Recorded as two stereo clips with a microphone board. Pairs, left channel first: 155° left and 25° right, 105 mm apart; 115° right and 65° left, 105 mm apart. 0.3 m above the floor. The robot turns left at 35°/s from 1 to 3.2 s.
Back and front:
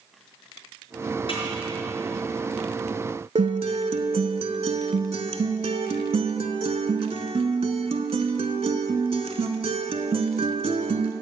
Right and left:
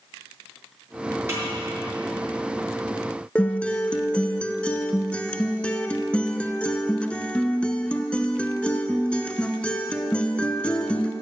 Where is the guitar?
35° right, 0.5 m.